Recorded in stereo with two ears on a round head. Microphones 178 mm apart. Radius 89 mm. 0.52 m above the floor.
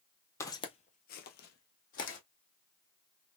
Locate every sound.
0.4 s footsteps: 15° left (ahead or behind), 0.9 m; by 2.2 s 40° left (ahead or behind), 1.4 m